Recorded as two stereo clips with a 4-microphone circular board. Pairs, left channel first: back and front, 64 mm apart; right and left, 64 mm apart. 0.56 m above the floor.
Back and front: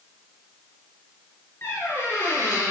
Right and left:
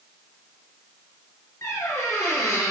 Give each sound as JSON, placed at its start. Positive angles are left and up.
{"t": 1.6, "sound": "a squeak", "azimuth_deg": -125, "distance_m": 5.0}